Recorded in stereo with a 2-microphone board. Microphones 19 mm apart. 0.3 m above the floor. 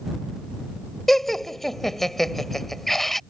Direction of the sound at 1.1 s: 15° left (ahead or behind).